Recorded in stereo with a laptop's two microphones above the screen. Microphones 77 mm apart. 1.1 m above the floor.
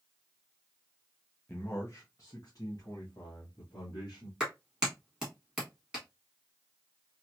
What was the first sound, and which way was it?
A man speaking, 25° left (ahead or behind).